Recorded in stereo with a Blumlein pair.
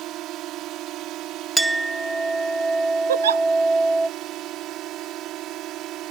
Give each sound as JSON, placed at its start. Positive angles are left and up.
{"t": 0.0, "sound": "a drone", "azimuth_deg": -35}
{"t": 1.6, "sound": "a clink", "azimuth_deg": -5}
{"t": 3.1, "sound": "a giggle", "azimuth_deg": -65}